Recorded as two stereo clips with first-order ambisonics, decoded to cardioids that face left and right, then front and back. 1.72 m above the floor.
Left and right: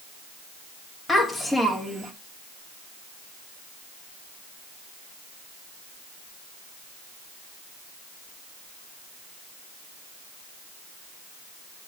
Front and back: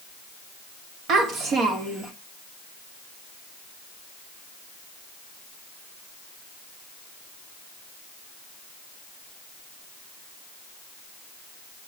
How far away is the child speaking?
About 1.4 m.